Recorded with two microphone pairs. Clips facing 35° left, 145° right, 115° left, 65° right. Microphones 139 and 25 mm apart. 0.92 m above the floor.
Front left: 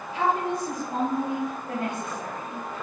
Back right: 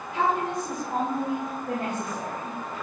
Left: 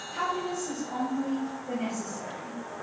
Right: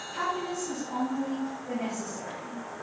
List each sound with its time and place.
0.1 s a woman speaking: 150° right, 4 m; by 2.6 s 140° right, 1.8 m